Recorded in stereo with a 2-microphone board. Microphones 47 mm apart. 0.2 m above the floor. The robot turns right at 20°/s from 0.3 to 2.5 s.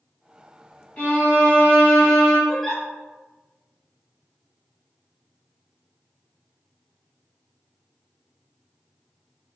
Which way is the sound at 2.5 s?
10° left (ahead or behind).